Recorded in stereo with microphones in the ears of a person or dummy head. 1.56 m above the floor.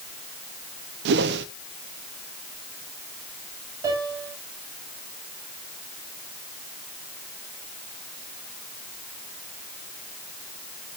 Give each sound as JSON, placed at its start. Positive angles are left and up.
{"t": 1.1, "sound": "a whoosh", "side_deg": -65, "distance_m": 1.0}
{"t": 3.8, "sound": "a piano", "side_deg": -25, "distance_m": 7.0}